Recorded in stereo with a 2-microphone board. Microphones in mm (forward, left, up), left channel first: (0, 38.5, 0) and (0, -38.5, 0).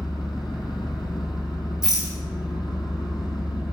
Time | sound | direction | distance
0.0 | an engine running | 75° left (ahead or behind) | 1.5 m
1.8 | a rattle | 55° left (ahead or behind) | 3 m